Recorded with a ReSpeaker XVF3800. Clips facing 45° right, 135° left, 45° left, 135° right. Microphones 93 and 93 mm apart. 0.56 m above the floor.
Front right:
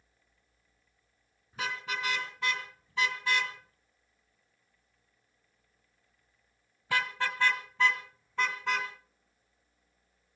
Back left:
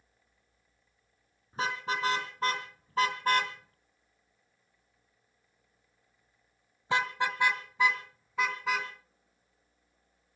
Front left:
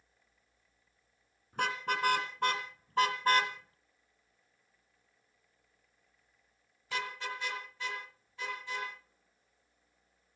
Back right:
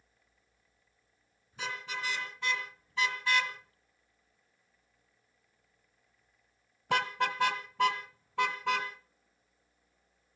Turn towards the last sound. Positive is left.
turn(degrees=-140)